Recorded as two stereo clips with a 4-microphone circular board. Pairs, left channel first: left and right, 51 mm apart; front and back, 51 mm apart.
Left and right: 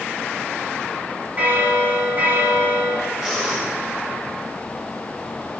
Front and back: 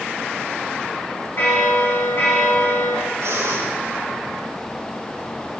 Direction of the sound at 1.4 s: 40° right.